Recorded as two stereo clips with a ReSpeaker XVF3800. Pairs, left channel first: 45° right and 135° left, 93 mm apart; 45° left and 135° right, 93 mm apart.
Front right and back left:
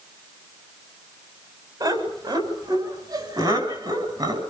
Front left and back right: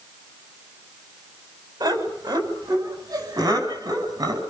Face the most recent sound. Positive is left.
turn(degrees=175)